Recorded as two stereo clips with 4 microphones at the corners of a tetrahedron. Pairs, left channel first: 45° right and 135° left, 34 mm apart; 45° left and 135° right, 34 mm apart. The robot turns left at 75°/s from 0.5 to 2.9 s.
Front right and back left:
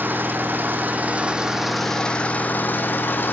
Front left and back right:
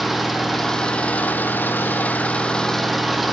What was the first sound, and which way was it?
An engine running, 135° left.